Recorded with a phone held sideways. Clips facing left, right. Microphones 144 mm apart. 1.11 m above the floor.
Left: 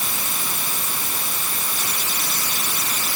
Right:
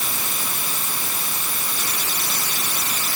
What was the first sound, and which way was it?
Only background noise.